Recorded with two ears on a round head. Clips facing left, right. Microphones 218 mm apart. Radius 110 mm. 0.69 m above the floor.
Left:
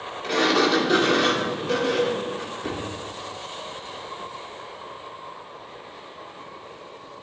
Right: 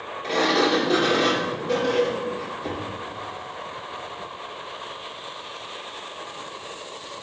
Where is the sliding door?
15° left (ahead or behind), 2 m.